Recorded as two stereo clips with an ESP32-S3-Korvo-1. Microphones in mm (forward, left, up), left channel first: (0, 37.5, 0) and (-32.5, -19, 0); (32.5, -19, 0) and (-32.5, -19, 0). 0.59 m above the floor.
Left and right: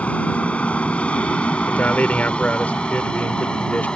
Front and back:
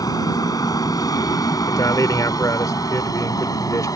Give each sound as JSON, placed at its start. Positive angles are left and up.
{"t": 0.0, "sound": "an aircraft", "azimuth_deg": -10}
{"t": 1.7, "sound": "a man speaking", "azimuth_deg": 0}